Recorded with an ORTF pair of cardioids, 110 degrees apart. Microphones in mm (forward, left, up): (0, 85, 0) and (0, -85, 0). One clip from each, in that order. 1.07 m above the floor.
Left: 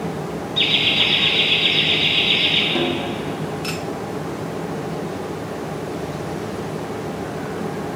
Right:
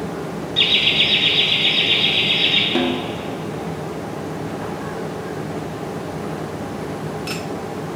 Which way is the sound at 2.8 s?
20° right.